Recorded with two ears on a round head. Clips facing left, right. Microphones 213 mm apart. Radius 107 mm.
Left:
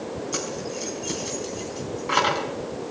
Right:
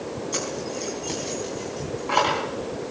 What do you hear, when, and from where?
0.3 s keys jangling: 10° left (ahead or behind), 4.5 m; by 2.5 s 30° left (ahead or behind), 4.5 m